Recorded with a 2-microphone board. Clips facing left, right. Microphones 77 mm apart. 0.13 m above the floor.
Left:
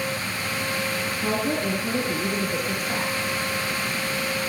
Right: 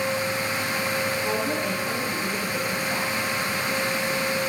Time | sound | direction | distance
1.2 | a woman speaking | 55° left (ahead or behind) | 2.5 m